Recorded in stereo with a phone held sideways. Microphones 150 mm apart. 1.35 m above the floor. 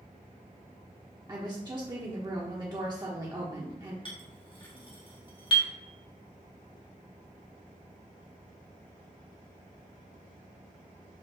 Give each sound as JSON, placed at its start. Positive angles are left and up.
{"t": 1.3, "sound": "a woman speaking", "side_deg": -30, "distance_m": 0.8}
{"t": 4.0, "sound": "a clink", "side_deg": 35, "distance_m": 1.2}